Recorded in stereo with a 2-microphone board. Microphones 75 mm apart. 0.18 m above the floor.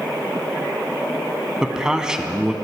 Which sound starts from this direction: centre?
A man speaking, at 1.6 s.